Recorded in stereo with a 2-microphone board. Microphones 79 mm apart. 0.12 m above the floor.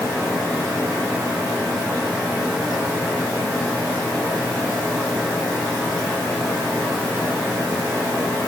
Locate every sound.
Only background noise.